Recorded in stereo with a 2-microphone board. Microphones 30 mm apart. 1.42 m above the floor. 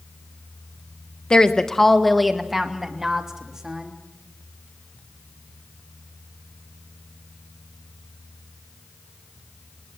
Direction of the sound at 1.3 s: 25° left (ahead or behind).